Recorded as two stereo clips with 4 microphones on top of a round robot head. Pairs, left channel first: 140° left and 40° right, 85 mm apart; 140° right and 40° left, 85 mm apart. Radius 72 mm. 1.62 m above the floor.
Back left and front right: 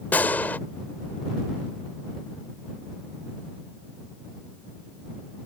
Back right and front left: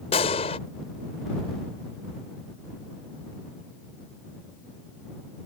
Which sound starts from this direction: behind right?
A gunshot, at 0.1 s.